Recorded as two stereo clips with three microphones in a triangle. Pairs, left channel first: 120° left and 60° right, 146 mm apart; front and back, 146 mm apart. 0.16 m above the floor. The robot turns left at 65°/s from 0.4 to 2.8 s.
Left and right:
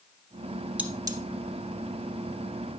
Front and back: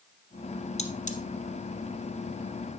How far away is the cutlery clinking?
About 1.6 m.